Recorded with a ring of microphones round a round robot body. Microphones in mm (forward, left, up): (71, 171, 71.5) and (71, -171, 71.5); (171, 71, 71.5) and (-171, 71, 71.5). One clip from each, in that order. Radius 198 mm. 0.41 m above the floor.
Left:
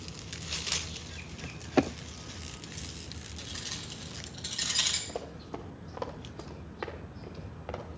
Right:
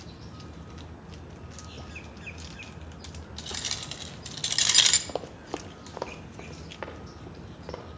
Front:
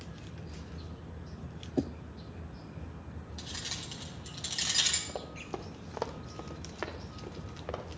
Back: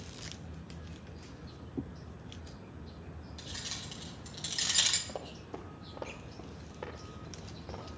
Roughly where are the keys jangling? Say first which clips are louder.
Right 6 dB, front 2 dB; right.